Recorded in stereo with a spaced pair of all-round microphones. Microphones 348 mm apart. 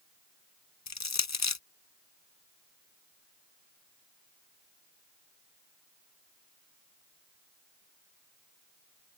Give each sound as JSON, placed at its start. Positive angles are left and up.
{"t": 0.9, "sound": "crushing", "side_deg": 50}